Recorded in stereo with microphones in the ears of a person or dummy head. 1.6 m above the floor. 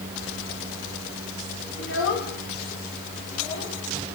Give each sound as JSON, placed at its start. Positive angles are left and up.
{"t": 1.8, "sound": "a child speaking", "side_deg": 75, "distance_m": 3.5}